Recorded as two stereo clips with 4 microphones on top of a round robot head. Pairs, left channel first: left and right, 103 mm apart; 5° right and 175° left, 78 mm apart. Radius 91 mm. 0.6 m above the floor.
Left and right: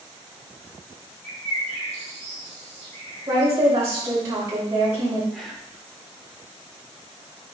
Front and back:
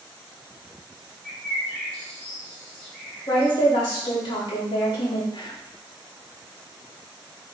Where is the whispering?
Straight ahead, 1.7 m.